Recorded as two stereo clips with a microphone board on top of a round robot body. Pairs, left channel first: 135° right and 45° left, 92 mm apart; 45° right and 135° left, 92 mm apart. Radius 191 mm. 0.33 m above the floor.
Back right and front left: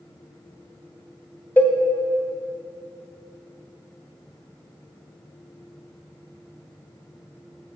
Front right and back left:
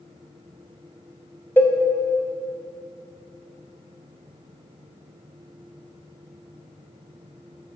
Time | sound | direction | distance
1.6 | a cowbell | 85° right | 0.9 m